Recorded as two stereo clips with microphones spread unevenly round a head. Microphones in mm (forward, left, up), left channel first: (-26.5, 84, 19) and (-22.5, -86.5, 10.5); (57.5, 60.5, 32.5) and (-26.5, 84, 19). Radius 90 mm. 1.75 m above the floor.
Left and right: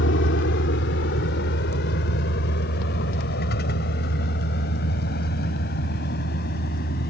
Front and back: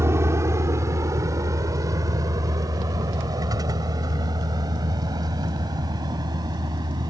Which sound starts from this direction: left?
A vehicle, at 0.0 s.